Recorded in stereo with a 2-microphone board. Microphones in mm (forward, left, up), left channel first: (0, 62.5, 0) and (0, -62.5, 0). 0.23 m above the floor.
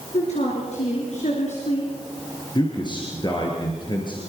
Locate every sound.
0.1 s a woman speaking: 65° left (ahead or behind), 4.5 m
2.5 s a man speaking: 35° left (ahead or behind), 4 m